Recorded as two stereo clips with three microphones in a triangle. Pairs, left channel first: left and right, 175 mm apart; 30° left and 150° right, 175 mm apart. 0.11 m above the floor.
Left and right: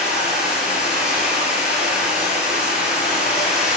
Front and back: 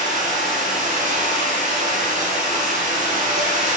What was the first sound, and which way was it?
Running water, 175° right.